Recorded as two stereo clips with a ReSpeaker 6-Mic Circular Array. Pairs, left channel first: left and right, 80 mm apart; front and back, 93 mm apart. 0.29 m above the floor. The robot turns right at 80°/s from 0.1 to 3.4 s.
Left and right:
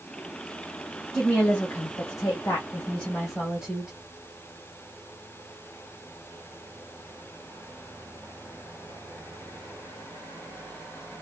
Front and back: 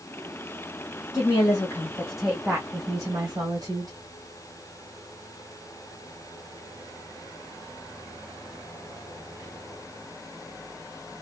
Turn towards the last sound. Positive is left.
turn(degrees=-170)